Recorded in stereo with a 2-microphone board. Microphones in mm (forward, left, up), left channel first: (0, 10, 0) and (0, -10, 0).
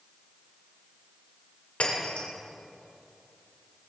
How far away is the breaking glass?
About 2.5 m.